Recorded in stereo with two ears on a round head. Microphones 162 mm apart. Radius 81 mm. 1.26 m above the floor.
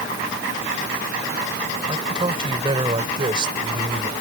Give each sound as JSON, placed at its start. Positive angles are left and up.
{"t": 1.9, "sound": "a man speaking", "side_deg": -30}